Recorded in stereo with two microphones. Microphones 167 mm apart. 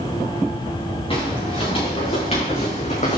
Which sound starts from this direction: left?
Footsteps, at 1.1 s.